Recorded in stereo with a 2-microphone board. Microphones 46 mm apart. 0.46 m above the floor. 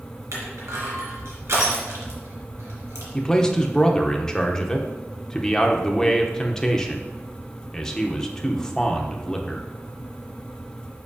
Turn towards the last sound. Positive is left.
turn(degrees=15)  # may be behind; listen again after turning